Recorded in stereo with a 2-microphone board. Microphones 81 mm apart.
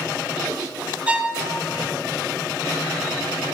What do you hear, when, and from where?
1.1 s a violin: 15° right (ahead or behind), 1.2 m